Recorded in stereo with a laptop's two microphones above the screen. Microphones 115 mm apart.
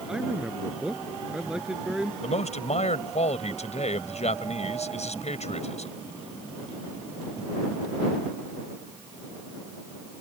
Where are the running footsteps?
I don't hear running footsteps.